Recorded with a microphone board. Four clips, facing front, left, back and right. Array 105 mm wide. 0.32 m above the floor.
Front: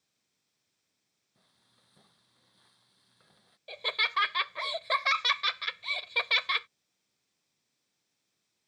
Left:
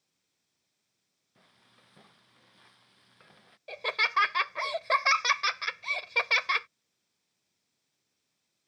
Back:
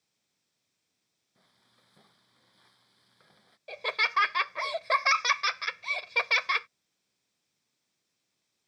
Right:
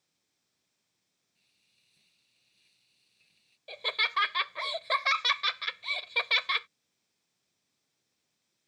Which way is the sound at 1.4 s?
105° left.